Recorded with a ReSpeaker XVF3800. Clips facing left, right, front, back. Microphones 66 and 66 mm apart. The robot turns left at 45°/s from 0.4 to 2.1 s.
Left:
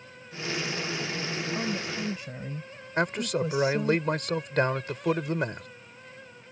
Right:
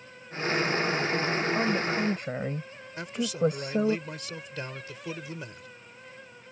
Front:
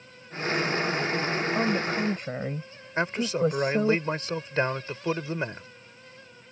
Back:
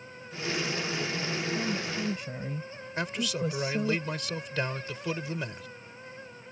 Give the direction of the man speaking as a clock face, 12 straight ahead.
10 o'clock.